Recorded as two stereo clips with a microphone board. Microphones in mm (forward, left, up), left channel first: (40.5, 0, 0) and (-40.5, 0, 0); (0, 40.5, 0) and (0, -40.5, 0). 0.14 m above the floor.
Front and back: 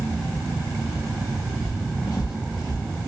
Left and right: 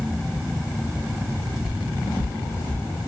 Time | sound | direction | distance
1.6 | footsteps | 50° left | 0.6 m